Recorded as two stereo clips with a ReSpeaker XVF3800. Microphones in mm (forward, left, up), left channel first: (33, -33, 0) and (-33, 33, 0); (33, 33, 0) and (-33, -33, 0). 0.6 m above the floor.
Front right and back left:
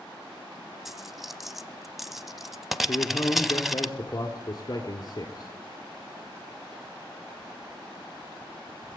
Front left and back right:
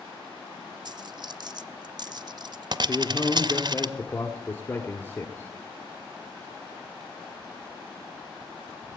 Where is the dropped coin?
140° right, 0.6 m.